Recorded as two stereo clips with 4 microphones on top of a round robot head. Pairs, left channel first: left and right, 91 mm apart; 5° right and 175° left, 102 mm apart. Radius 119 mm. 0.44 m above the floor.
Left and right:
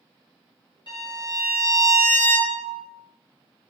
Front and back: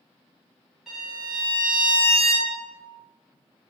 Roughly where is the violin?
Left.